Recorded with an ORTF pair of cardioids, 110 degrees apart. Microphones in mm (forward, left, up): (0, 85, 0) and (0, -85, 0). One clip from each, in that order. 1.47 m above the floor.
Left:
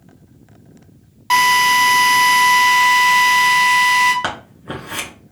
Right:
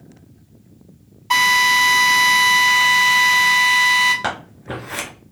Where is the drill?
55° left, 1.9 m.